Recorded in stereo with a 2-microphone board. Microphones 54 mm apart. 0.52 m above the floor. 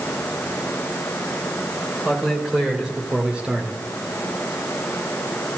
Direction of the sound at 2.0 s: 10° right (ahead or behind).